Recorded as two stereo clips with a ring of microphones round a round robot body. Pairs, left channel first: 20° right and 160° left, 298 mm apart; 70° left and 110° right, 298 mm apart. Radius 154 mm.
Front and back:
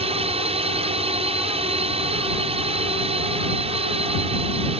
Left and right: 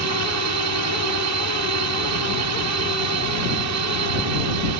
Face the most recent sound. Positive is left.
turn(degrees=-135)